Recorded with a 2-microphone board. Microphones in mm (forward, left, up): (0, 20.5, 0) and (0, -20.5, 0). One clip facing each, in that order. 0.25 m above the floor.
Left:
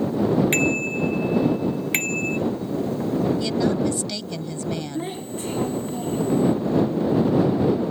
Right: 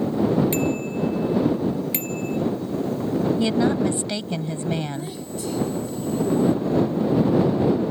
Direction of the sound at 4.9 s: 40° left (ahead or behind).